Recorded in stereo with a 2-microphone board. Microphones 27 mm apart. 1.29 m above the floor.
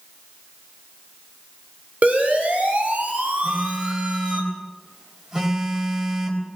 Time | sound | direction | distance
2.0 | a siren | 65° right (ahead or behind) | 6 m
3.4 | a phone buzzing | 20° right (ahead or behind) | 4.5 m